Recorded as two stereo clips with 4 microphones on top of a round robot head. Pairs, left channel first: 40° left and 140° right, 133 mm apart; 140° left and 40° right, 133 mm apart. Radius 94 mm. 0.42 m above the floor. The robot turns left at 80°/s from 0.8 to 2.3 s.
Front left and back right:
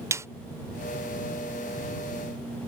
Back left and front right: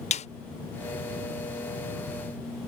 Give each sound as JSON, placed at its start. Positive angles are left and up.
{"t": 0.1, "sound": "a snare drum", "azimuth_deg": 155}